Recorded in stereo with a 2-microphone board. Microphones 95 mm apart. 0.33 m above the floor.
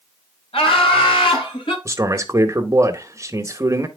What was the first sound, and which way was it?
Laughter, 75° left (ahead or behind).